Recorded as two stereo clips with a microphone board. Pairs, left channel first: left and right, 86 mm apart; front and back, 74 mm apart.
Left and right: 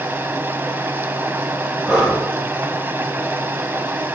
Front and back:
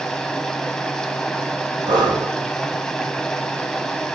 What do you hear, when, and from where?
0.0 s running water: 70° right, 1.0 m
1.9 s breathing: 170° right, 7.5 m